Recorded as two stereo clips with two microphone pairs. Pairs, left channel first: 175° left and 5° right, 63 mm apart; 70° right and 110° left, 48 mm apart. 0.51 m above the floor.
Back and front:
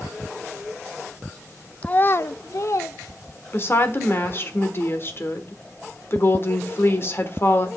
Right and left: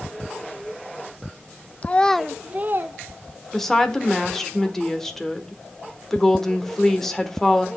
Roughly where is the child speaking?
Behind right.